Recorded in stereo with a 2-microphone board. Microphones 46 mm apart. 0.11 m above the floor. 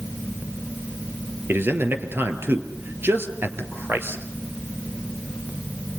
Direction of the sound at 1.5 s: 50° right (ahead or behind).